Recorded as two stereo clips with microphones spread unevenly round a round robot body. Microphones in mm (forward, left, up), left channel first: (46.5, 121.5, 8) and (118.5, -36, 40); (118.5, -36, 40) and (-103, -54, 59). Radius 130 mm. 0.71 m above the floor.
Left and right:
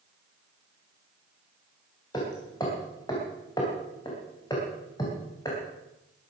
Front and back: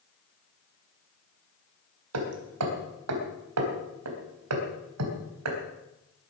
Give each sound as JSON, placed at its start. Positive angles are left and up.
{"t": 2.1, "sound": "hammering", "azimuth_deg": -170, "distance_m": 3.5}